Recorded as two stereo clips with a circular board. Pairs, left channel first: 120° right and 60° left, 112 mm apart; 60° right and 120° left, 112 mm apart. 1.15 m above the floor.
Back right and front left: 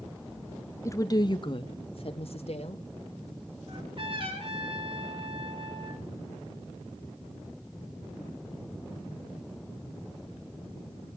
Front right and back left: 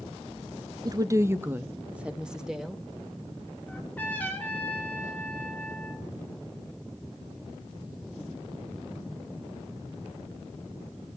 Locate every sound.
0.8 s a woman speaking: 175° left, 0.8 m; by 2.8 s 150° right, 1.8 m
3.7 s a trumpet: 15° left, 3.5 m